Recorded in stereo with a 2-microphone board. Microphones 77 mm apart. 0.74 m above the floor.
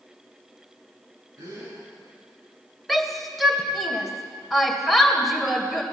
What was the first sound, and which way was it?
A gasp, 50° right (ahead or behind).